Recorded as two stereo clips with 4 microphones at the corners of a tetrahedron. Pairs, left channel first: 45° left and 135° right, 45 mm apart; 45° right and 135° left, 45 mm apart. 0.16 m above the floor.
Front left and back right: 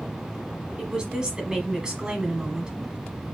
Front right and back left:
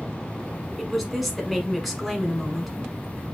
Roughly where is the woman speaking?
Behind right.